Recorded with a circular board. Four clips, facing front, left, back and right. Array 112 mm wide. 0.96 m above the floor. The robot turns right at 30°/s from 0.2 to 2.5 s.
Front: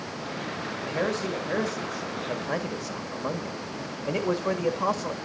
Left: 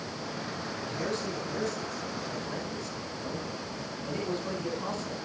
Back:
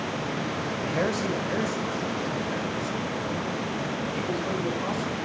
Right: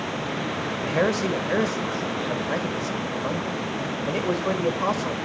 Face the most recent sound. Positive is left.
turn(degrees=-45)